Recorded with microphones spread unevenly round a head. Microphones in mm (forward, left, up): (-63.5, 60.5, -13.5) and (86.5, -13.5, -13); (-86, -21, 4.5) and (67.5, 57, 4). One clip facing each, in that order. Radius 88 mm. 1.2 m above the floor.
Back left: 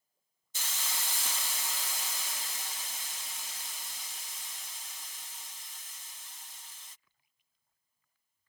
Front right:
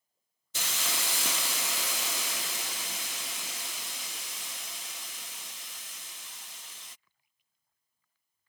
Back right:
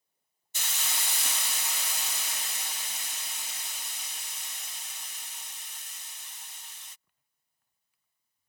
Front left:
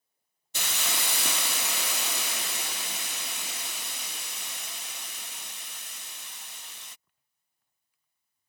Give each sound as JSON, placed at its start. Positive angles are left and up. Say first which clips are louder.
{"t": 0.5, "sound": "a hiss", "louder": "front right 5 dB, front left 5 dB", "azimuth_deg": -5}